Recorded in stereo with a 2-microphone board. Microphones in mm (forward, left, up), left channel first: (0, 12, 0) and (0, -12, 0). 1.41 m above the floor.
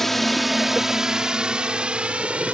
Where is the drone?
15° left (ahead or behind); by 2.5 s 55° right (ahead or behind).